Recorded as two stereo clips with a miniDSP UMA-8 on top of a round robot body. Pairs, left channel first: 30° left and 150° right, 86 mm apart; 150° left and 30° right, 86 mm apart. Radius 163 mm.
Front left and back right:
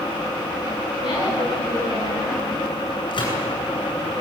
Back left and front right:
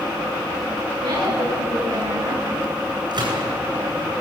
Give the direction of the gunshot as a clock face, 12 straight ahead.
12 o'clock.